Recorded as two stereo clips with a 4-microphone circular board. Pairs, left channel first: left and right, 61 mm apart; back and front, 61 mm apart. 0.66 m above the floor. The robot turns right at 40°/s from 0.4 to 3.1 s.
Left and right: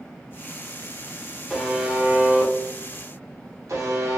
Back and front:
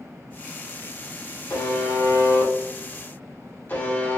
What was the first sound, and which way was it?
A buzzer, 175° left.